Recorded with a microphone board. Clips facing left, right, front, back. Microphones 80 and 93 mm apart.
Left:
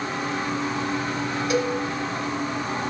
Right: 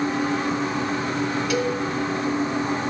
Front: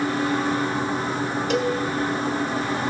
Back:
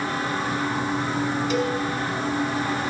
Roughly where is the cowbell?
Ahead left.